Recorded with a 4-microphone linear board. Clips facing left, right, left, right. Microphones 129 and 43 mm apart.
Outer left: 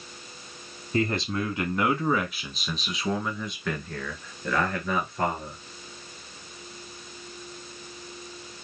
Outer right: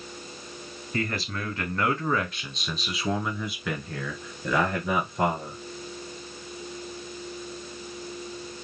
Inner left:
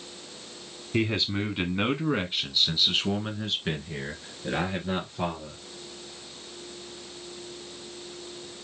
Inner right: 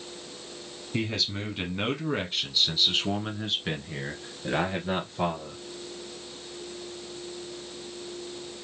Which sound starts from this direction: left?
A man speaking, at 0.9 s.